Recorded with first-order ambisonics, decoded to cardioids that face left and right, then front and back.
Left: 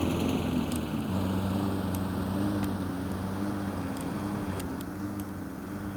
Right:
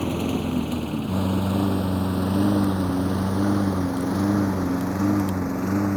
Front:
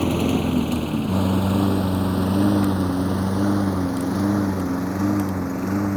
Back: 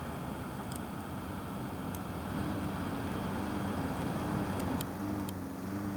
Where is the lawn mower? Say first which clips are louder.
Right 4 dB, front 19 dB; 10° right; by 6.0 s 45° right.